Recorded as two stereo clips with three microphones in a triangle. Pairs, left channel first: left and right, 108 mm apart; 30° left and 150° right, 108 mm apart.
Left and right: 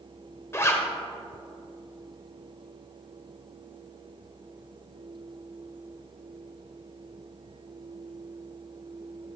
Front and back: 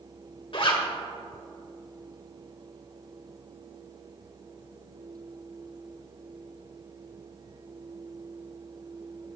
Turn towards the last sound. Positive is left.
turn(degrees=35)